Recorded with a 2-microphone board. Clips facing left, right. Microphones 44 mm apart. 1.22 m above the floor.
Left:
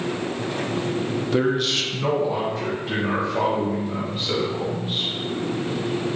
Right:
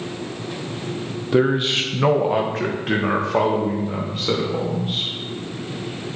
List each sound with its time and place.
1.3 s a man speaking: 10° right (ahead or behind), 0.8 m; by 5.1 s 80° right, 2.5 m